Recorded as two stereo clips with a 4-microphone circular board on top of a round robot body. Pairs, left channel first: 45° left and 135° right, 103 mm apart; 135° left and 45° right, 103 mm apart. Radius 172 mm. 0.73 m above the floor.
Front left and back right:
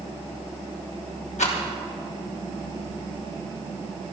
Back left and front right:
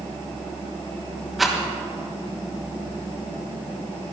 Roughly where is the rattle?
Ahead left.